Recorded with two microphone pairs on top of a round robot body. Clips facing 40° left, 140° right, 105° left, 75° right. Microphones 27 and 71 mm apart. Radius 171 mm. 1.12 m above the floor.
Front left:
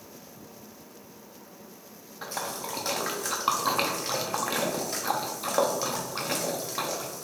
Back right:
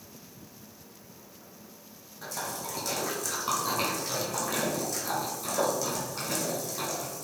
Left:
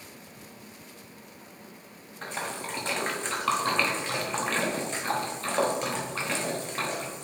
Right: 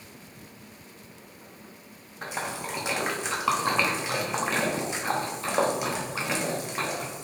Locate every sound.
2.2 s a splash: 10° left, 1.0 m